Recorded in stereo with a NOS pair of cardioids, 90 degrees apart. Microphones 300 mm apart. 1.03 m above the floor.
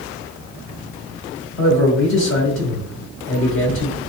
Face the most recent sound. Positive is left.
turn(degrees=40)